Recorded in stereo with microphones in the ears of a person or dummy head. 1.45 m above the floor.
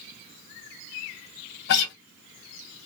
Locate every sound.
1.7 s a guitar: 65° left (ahead or behind), 0.7 m